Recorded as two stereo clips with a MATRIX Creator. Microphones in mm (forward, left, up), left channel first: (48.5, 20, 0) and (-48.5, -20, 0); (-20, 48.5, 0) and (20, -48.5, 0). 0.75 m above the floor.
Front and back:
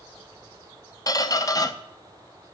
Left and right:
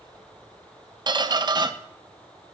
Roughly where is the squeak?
Ahead right.